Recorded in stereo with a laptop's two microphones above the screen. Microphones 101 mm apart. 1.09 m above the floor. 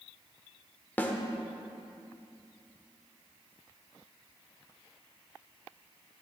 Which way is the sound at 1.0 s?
15° left (ahead or behind).